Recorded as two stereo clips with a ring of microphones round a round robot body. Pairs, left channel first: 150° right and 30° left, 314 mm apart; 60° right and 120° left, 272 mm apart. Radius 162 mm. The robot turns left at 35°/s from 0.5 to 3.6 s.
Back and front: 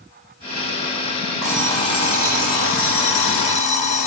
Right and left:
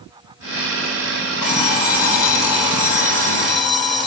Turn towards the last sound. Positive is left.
turn(degrees=-135)